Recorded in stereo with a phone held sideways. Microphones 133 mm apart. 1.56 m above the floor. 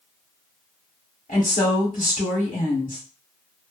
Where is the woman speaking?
80° left, 1.1 m.